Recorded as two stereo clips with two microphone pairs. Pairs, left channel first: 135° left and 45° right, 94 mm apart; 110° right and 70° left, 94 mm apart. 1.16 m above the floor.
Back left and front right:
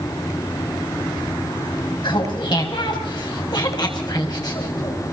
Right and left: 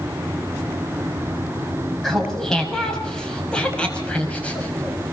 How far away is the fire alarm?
No fire alarm in this recording.